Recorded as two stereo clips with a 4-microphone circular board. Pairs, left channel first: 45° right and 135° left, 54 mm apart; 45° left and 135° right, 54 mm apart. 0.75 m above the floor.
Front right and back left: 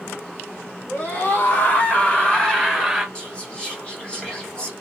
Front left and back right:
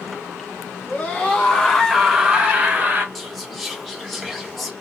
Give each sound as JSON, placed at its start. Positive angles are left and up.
{"t": 0.9, "sound": "a scream", "azimuth_deg": -10, "distance_m": 1.6}
{"t": 3.1, "sound": "whispering", "azimuth_deg": -45, "distance_m": 1.0}